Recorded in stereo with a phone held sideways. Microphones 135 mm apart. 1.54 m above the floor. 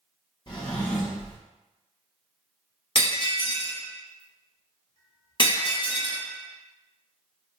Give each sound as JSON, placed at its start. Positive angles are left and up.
{"t": 0.5, "sound": "a drawer", "side_deg": 35, "distance_m": 0.8}
{"t": 3.0, "sound": "breaking glass", "side_deg": 40, "distance_m": 0.8}